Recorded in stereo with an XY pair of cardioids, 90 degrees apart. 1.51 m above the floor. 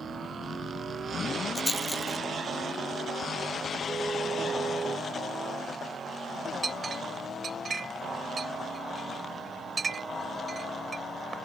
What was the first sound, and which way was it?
A rattle, 10° left.